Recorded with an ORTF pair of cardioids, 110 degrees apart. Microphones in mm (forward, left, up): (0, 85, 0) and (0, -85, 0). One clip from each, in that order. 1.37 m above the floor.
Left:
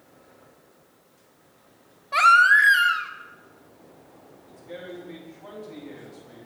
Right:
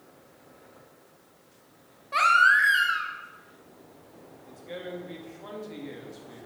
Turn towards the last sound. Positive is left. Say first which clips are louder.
# right 1 dB
turn(degrees=-40)